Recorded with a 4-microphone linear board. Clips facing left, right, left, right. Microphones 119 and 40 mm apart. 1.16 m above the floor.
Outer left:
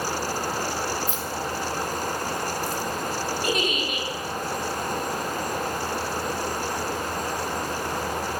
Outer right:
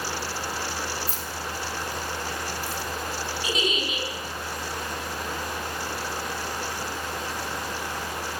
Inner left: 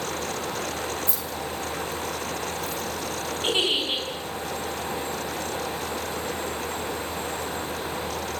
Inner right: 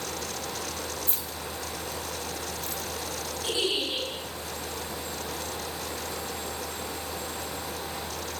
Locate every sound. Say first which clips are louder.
1.1 s keys jangling: outer left 5 dB, inner left 5 dB; 40° right (ahead or behind), 4.5 m; by 2.8 s 65° right (ahead or behind), 5.5 m
3.4 s a giggle: even, inner left 4 dB; 60° left (ahead or behind), 6.5 m